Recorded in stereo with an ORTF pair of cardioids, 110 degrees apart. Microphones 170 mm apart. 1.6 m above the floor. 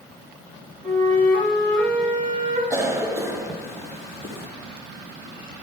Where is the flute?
60° right, 3.5 m.